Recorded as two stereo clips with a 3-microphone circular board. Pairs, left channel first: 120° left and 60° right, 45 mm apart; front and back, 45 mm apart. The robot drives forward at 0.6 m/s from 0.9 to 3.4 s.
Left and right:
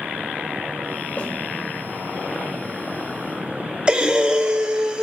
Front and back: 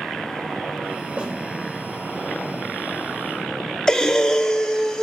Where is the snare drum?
135° left, 1.2 m; by 1.3 s 140° left, 1.2 m.